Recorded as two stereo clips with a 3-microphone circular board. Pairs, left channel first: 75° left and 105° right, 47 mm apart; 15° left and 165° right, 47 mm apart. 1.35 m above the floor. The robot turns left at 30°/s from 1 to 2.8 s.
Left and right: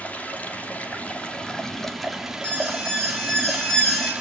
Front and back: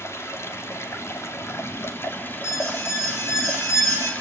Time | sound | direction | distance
0.0 | running water | 20° left | 2.5 m
2.4 | an alarm | 10° left | 6 m